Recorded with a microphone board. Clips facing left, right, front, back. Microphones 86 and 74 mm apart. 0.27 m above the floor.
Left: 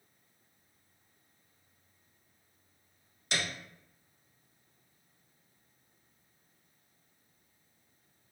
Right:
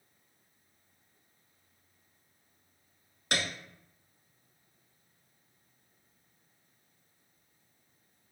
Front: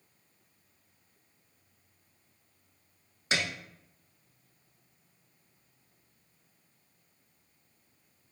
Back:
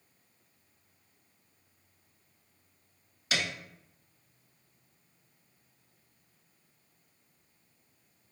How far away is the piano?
About 0.6 m.